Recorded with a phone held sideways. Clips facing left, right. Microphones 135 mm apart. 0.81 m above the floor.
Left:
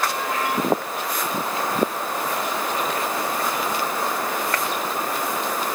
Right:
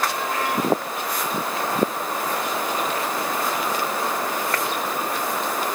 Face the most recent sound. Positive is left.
No sound to turn to.